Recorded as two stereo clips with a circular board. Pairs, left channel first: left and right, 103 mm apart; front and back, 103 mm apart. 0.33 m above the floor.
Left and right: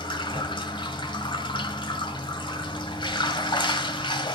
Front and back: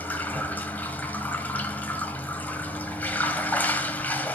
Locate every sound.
0.0 s running water: 70° left, 1.4 m